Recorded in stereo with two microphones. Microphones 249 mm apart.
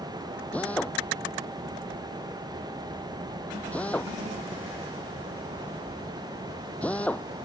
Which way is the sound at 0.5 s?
5° left (ahead or behind).